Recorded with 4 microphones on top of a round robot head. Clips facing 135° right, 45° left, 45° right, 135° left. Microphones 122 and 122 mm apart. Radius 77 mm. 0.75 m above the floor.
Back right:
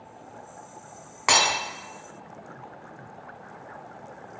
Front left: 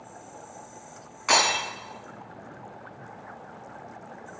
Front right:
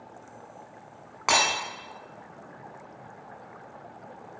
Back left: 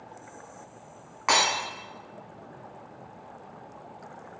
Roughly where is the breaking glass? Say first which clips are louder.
Even, even; behind right.